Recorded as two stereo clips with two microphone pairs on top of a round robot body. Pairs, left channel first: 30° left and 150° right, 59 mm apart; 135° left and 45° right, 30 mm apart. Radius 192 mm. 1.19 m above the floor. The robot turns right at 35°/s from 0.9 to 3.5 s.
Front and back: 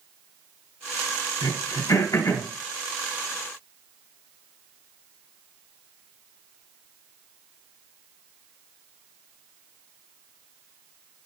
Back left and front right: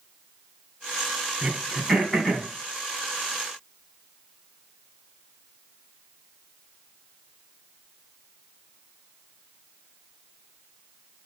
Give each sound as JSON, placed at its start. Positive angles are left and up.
{"t": 1.4, "sound": "throat clearing", "azimuth_deg": 35, "distance_m": 3.0}